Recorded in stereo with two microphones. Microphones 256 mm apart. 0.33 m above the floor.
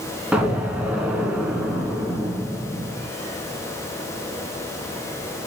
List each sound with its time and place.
0.3 s an explosion: 5° right (ahead or behind), 1.2 m